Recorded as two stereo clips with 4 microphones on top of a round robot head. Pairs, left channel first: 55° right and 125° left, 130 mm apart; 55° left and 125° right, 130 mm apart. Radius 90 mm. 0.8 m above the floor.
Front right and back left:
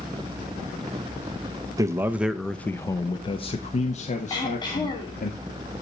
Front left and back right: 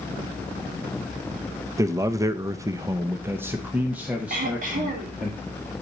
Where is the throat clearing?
110° right, 2.5 m.